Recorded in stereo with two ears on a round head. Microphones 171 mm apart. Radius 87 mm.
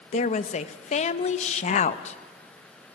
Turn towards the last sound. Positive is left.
turn(degrees=35)  # may be behind; listen again after turning